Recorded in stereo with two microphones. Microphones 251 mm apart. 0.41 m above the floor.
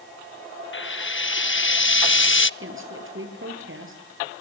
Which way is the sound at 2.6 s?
55° right (ahead or behind).